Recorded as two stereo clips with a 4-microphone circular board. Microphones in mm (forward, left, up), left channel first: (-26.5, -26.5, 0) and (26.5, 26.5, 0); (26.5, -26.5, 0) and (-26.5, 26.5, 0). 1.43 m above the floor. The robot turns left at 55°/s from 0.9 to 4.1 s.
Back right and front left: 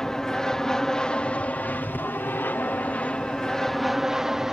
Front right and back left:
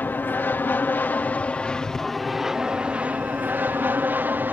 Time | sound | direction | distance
0.0 | an aircraft | 60° right | ?